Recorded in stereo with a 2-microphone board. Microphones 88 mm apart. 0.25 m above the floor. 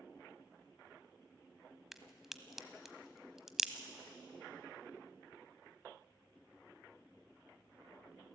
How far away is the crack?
About 1.0 m.